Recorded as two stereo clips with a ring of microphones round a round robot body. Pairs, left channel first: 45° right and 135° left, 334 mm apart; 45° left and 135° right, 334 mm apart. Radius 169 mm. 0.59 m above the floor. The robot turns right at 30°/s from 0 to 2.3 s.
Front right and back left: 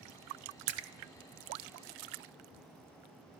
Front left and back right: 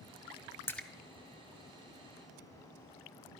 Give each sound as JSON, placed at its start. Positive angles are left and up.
{"t": 0.7, "sound": "a splash", "azimuth_deg": 130, "distance_m": 0.7}